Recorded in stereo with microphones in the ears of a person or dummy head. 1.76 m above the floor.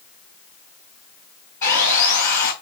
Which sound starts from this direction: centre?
Sawing, at 1.6 s.